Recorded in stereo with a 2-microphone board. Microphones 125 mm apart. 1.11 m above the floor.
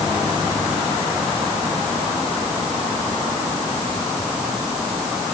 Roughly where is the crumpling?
No crumpling in this recording.